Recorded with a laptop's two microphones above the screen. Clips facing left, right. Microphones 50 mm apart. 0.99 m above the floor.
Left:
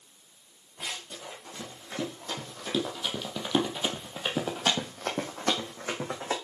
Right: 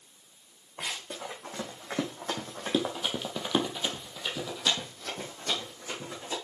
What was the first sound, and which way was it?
Running footsteps, 55° right (ahead or behind).